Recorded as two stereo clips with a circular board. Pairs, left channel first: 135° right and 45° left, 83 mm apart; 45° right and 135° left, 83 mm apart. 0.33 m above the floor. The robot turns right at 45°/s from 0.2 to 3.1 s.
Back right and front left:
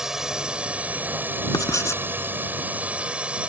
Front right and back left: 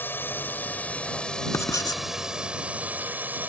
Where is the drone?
30° right; by 3.5 s 100° left.